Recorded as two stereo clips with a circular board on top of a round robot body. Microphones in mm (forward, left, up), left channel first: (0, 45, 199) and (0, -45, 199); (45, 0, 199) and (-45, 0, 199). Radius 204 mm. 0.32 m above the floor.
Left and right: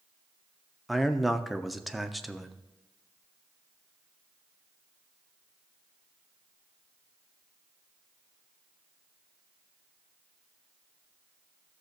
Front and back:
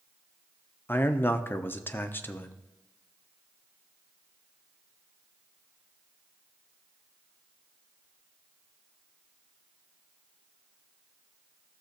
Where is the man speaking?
Straight ahead, 0.8 m.